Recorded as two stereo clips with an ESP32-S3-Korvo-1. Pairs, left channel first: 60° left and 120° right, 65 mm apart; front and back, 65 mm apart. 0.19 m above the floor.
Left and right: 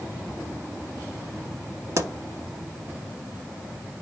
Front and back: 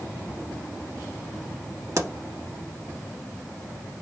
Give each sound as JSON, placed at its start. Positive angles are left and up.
{"t": 2.0, "sound": "a pop", "azimuth_deg": -150, "distance_m": 0.7}